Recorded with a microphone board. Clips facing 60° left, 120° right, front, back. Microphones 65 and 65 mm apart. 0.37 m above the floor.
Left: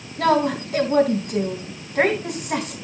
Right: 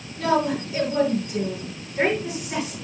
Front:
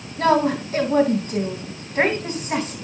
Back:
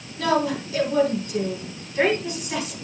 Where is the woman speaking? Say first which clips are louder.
Left 3 dB, front 4 dB; 45° left, 3.5 m.